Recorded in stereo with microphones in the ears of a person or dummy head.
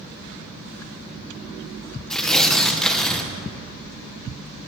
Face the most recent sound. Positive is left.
turn(degrees=10)  # may be behind; listen again after turning